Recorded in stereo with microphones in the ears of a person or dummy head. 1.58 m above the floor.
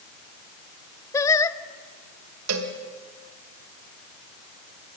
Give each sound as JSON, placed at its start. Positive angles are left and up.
{"t": 1.1, "sound": "singing", "side_deg": 20, "distance_m": 0.7}
{"t": 2.5, "sound": "a cowbell", "side_deg": -85, "distance_m": 2.0}